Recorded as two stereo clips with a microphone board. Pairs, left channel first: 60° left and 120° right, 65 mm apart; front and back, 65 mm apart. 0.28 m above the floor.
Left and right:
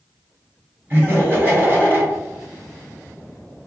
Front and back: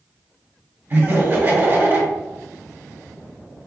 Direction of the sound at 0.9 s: 150° right.